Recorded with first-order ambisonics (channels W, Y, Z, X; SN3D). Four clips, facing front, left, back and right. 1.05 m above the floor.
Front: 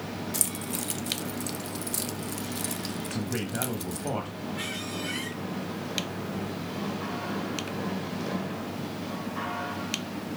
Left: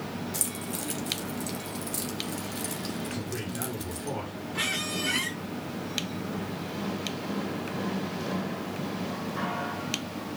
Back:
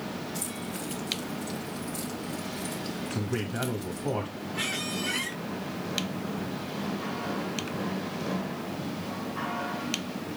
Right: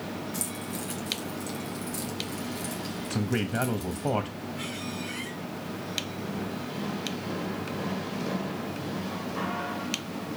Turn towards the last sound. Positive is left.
turn(degrees=110)